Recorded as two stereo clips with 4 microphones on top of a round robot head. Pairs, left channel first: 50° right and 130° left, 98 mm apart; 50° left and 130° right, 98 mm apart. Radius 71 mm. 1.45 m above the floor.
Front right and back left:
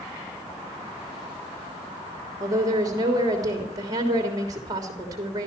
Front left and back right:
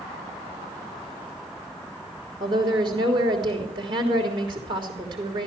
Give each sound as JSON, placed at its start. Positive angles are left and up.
{"t": 2.4, "sound": "a woman speaking", "azimuth_deg": -170, "distance_m": 3.0}